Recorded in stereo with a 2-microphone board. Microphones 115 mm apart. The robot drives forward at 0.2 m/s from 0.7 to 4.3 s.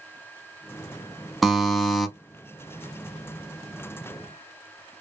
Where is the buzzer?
Centre (ahead or behind), 0.7 m.